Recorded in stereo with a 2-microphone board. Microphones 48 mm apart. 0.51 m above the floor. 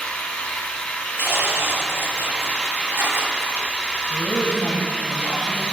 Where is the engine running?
30° left (ahead or behind), 1.9 m.